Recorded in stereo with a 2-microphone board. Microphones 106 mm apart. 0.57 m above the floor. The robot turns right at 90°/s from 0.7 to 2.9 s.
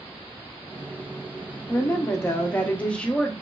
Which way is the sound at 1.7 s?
15° left (ahead or behind).